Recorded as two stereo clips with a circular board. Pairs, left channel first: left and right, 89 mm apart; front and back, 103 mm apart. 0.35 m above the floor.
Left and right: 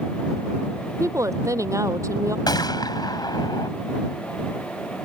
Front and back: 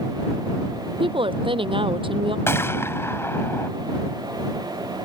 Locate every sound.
1.0 s a woman speaking: 145° right
2.5 s a gunshot: 60° left